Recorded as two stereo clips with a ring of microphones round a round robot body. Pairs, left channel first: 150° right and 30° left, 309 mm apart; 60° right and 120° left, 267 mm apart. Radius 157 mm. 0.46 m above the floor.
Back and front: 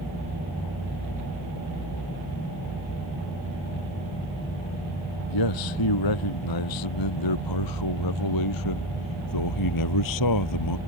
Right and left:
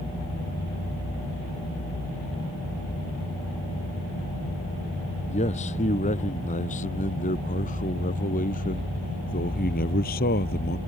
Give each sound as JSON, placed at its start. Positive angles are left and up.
{"t": 5.3, "sound": "a man speaking", "azimuth_deg": -130}